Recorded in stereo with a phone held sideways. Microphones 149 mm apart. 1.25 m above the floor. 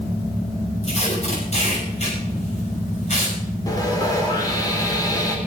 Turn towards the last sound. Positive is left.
turn(degrees=25)  # may be behind; listen again after turning